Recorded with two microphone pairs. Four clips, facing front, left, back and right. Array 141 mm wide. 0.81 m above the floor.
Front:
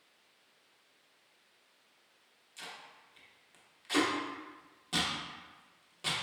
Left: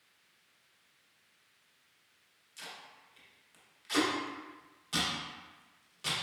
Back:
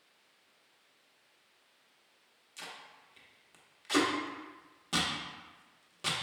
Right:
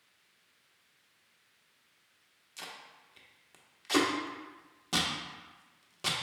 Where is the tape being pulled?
105° right, 0.8 m.